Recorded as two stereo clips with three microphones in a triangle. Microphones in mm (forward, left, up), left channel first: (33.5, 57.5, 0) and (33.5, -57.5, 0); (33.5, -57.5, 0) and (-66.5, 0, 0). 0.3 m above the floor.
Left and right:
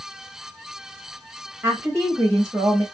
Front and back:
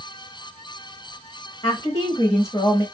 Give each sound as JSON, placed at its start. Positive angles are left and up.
{"t": 1.6, "sound": "a woman speaking", "azimuth_deg": -20, "distance_m": 1.1}